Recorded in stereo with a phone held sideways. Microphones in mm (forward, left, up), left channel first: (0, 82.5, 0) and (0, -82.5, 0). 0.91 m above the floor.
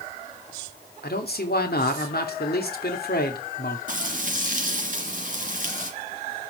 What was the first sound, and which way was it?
A man speaking, 70° left (ahead or behind).